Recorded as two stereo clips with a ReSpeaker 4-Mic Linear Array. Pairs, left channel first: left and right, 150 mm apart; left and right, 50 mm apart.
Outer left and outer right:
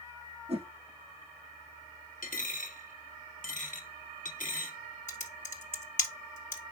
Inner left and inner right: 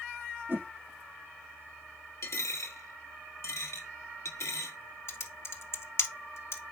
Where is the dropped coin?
60° left (ahead or behind), 1.4 m.